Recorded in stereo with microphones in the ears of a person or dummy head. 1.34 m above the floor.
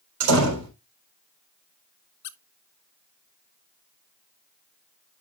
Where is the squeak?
60° left (ahead or behind), 0.5 m.